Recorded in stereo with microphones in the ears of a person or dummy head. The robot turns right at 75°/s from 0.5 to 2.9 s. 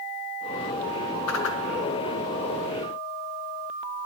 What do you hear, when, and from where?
1.3 s a whoosh: 85° left, 0.7 m; by 1.6 s 60° left (ahead or behind), 0.7 m